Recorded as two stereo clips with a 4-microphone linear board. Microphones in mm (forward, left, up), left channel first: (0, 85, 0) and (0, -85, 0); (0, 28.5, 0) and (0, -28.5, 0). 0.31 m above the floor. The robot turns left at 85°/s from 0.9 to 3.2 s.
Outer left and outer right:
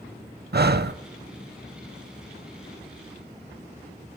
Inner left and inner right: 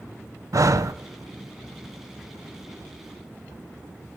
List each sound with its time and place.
0.5 s breathing: 75° right (ahead or behind), 0.5 m